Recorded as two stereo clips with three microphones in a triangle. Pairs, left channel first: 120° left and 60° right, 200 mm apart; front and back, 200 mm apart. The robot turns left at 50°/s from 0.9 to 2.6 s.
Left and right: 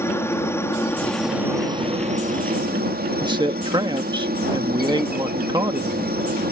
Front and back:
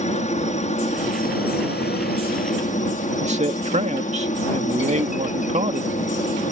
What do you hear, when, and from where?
0.0 s a helicopter: 45° left; by 6.5 s 40° right
3.2 s a man speaking: 130° right